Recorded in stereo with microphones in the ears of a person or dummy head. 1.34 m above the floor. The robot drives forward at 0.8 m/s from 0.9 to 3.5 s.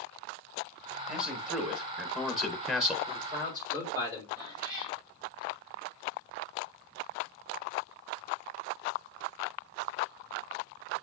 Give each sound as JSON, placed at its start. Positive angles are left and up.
{"t": 1.1, "sound": "a man speaking", "side_deg": 5, "distance_m": 2.5}
{"t": 3.1, "sound": "a man speaking", "side_deg": -30, "distance_m": 4.0}
{"t": 4.4, "sound": "a cat meowing", "side_deg": -25, "distance_m": 5.5}